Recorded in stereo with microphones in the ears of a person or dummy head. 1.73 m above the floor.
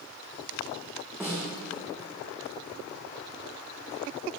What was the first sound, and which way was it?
A snare drum, 5° right (ahead or behind).